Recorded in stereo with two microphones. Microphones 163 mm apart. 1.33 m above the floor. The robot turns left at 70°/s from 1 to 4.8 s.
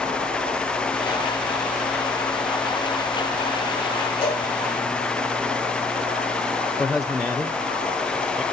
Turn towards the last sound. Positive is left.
turn(degrees=0)  # may be behind; listen again after turning